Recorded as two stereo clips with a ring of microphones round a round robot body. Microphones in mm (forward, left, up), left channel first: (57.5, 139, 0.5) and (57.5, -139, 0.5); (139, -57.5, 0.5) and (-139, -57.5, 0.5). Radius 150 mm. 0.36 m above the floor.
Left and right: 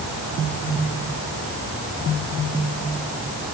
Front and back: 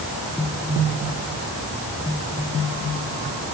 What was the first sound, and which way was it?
Only background noise.